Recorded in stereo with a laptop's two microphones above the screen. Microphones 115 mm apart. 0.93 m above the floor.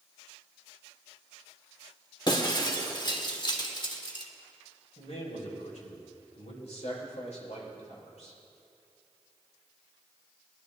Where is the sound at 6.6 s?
70° left (ahead or behind), 5 m.